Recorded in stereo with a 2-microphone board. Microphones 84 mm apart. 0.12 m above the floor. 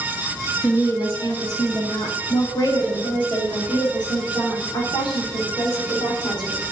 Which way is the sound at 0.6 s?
45° left (ahead or behind).